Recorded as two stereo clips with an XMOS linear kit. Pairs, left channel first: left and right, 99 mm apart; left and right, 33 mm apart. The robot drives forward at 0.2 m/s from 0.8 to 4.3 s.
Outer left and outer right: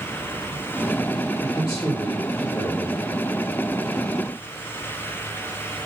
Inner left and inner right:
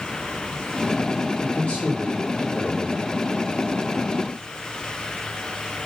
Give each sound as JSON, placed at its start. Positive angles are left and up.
{"t": 1.4, "sound": "a man speaking", "side_deg": 30, "distance_m": 0.9}